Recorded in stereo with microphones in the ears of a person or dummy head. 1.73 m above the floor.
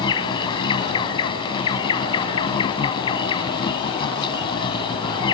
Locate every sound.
0.0 s an insect: 30° left (ahead or behind)